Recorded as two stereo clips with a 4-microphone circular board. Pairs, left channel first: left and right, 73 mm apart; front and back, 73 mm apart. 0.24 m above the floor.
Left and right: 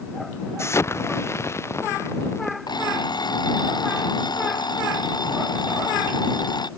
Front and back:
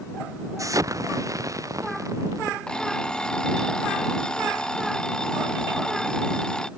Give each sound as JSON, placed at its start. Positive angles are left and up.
{"t": 0.6, "sound": "an explosion", "azimuth_deg": 140}
{"t": 2.7, "sound": "an alarm clock", "azimuth_deg": 80}